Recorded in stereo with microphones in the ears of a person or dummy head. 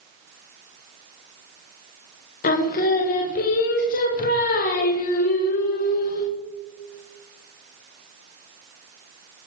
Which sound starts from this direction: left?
Singing, at 2.4 s.